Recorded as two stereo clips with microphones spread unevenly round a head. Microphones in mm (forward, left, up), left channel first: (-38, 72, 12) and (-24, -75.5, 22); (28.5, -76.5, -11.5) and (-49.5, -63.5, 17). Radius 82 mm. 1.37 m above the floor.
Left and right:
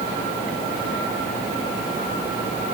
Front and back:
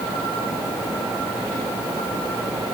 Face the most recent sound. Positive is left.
No sound to turn to.